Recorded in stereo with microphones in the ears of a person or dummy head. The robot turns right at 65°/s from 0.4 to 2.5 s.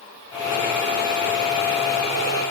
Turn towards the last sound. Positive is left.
No sound to turn to.